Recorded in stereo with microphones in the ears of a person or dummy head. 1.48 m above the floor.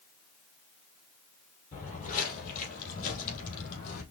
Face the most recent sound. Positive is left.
turn(degrees=50)  # may be behind; listen again after turning